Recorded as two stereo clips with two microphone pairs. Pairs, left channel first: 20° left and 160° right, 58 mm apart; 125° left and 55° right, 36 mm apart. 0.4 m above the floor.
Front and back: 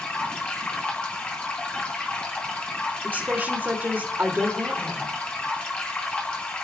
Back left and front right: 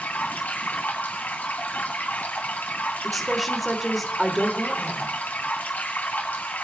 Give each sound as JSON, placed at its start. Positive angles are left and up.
{"t": 0.0, "sound": "running water", "azimuth_deg": 95, "distance_m": 2.5}
{"t": 3.0, "sound": "a woman speaking", "azimuth_deg": -145, "distance_m": 1.5}